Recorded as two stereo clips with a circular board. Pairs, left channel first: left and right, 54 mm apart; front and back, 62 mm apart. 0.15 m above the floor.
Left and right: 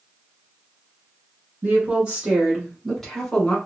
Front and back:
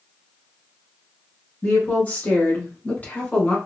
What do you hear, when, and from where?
1.6 s a woman speaking: 50° right, 1.5 m; by 3.6 s 40° left, 1.3 m